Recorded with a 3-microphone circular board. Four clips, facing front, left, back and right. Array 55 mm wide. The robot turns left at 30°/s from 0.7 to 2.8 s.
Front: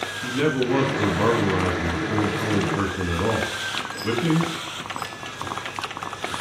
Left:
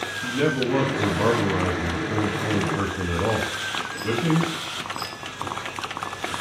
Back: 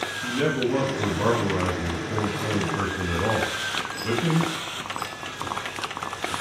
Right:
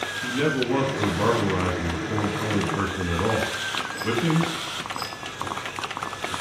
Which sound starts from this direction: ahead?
A man speaking, at 0.2 s.